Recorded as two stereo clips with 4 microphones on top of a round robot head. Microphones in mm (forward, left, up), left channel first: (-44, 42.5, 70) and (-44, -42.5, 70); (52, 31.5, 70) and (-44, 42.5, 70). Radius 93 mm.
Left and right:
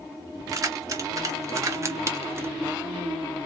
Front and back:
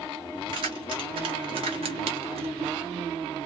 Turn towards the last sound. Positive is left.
turn(degrees=-150)